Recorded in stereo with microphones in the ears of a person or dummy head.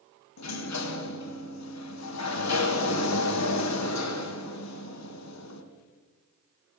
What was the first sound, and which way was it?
A sliding door, 80° left.